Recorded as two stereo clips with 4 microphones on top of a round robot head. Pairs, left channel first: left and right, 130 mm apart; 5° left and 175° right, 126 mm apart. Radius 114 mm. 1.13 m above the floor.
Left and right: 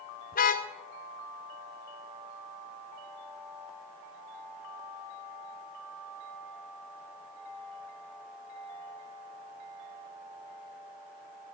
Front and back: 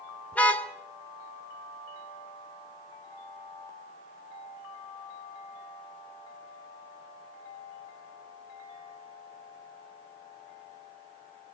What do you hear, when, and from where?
0.3 s a car horn: 85° left, 2 m